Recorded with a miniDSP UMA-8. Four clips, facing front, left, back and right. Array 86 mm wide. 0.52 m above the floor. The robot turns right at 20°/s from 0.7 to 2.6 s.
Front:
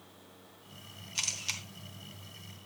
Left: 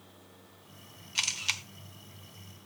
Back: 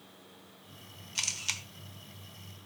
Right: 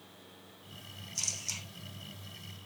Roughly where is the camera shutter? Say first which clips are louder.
Left 11 dB, back 1 dB; left.